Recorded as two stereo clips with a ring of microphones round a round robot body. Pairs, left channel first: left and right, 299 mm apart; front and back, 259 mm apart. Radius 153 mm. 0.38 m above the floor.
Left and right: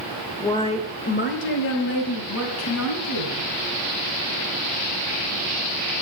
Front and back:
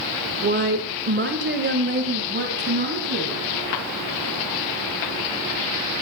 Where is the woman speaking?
170° left, 0.9 m; by 3.5 s 130° left, 3.5 m.